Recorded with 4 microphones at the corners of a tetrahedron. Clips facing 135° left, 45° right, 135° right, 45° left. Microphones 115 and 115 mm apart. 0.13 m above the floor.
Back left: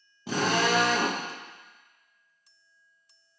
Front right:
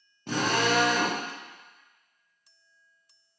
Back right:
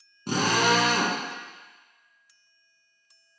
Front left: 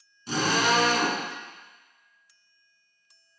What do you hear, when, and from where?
0.3 s a drill: 140° right, 2.5 m